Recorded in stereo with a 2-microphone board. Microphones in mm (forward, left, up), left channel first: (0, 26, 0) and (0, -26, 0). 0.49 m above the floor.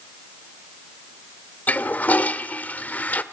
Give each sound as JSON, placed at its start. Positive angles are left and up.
{"t": 1.7, "sound": "a toilet flushing", "side_deg": 30, "distance_m": 1.1}